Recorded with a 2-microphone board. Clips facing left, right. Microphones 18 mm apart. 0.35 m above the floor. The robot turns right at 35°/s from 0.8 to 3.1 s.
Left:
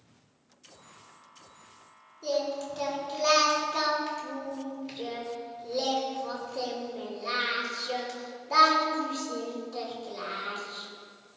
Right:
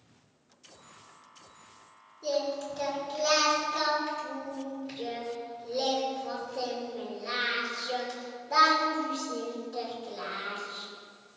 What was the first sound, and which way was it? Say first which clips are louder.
Singing: left 1 dB; 20° left.